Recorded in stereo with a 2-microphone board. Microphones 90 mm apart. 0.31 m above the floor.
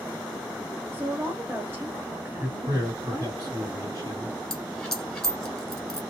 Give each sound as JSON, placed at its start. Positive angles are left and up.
{"t": 0.9, "sound": "a woman speaking", "side_deg": -25, "distance_m": 0.9}
{"t": 2.4, "sound": "a man speaking", "side_deg": -45, "distance_m": 2.0}
{"t": 4.5, "sound": "a dropped coin", "side_deg": 5, "distance_m": 1.3}